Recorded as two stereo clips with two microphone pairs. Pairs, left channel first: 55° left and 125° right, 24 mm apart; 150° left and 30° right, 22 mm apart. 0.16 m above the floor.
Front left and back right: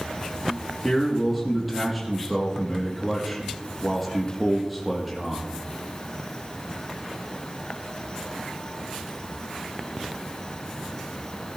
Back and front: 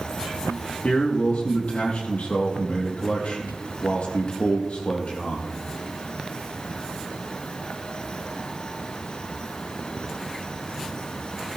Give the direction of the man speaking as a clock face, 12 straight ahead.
7 o'clock.